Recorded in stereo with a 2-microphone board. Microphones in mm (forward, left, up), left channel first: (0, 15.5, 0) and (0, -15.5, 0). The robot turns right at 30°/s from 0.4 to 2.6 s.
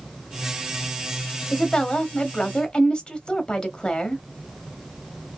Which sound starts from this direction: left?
A woman speaking, at 1.5 s.